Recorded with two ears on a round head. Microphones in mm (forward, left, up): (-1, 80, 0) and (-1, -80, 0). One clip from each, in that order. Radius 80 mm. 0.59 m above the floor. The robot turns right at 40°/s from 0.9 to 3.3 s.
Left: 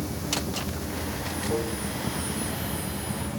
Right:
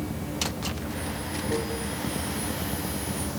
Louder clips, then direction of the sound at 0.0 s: Left 1 dB; 125° left.